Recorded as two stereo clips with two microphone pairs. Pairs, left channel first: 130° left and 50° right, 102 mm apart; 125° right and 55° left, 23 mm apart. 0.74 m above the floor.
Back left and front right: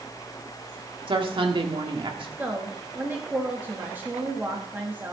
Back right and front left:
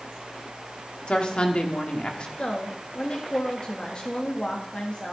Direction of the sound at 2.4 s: 115° right.